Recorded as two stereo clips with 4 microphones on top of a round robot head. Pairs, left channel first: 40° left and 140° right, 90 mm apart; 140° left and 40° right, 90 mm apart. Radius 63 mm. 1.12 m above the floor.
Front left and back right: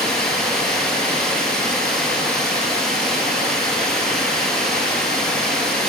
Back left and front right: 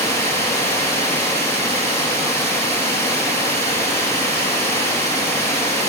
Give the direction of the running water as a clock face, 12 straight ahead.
2 o'clock.